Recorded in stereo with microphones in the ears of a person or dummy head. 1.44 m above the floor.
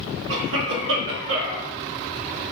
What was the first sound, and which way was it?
A cough, 75° right (ahead or behind).